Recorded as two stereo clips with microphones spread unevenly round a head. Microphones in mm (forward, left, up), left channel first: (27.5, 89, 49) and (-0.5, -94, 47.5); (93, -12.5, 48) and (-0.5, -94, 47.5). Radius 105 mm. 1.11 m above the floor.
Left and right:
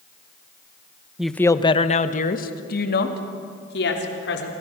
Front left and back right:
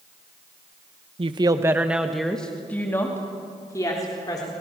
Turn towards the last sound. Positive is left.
turn(degrees=110)